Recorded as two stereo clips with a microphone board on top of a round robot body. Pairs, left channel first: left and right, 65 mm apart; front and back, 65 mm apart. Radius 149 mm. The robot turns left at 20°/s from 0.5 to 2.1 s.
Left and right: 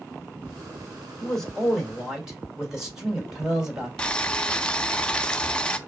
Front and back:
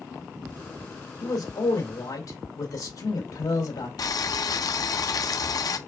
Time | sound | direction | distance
1.2 | a man speaking | 10° left | 2.5 m
4.0 | boiling | 15° left | 0.7 m